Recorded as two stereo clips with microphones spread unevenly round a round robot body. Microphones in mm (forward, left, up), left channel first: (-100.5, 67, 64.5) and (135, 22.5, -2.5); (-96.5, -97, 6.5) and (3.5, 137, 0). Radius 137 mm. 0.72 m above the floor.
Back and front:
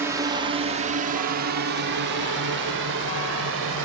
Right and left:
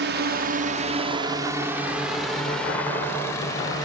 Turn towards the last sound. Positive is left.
turn(degrees=-35)